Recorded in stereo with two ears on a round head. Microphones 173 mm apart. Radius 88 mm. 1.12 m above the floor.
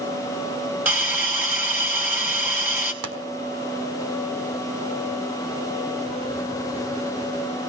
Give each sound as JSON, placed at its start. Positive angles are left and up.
{"t": 0.8, "sound": "a hiss", "side_deg": -10, "distance_m": 4.0}
{"t": 3.0, "sound": "a pop", "side_deg": -75, "distance_m": 4.0}